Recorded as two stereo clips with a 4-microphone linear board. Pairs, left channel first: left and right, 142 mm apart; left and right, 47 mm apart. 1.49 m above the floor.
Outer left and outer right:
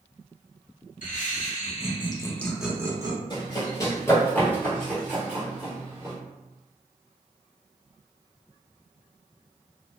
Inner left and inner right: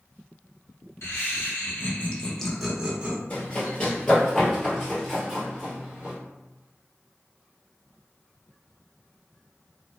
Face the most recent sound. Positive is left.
turn(degrees=-20)  # may be behind; listen again after turning